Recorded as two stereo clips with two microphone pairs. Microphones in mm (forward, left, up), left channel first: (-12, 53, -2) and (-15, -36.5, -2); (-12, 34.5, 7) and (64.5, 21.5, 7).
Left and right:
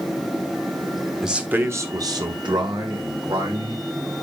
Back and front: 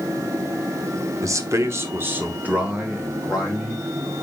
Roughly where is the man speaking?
Ahead.